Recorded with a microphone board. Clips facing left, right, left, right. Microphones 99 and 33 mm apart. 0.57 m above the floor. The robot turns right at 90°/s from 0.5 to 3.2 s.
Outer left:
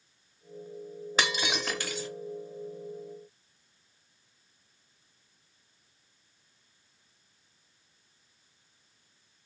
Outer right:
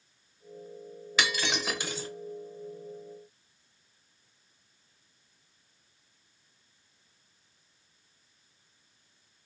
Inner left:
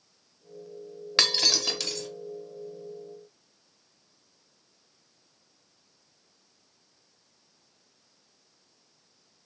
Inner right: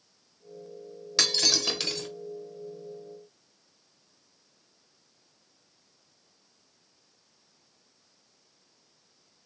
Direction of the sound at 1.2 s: 145° left.